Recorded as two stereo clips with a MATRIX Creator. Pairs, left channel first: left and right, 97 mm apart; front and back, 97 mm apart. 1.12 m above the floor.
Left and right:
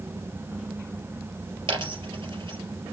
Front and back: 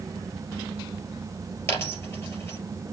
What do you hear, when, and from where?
1.7 s a dropped coin: 65° right, 3.5 m